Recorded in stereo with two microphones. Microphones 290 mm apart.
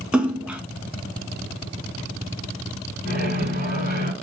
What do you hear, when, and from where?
0.1 s a splash: 5° right (ahead or behind), 0.5 m
3.0 s a microwave: 35° left (ahead or behind), 1.8 m